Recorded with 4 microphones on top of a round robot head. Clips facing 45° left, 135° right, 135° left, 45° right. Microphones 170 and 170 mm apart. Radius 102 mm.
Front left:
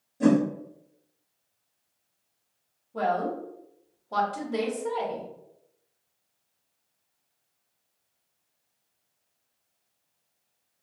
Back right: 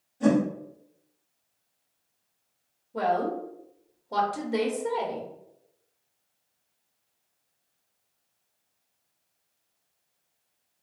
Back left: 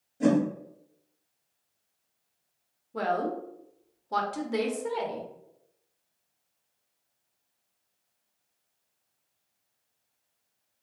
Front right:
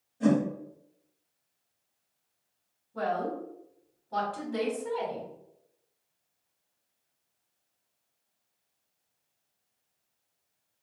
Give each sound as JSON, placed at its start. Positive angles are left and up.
{"t": 0.2, "sound": "a whoosh", "azimuth_deg": 85, "distance_m": 1.1}
{"t": 2.9, "sound": "a woman speaking", "azimuth_deg": 150, "distance_m": 0.9}